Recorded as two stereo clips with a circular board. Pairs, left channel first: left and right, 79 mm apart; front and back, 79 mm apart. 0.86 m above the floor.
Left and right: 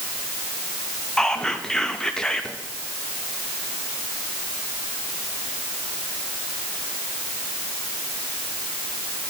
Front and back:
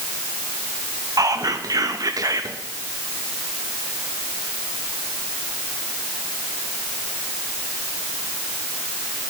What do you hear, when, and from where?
1.2 s whispering: 170° left, 0.5 m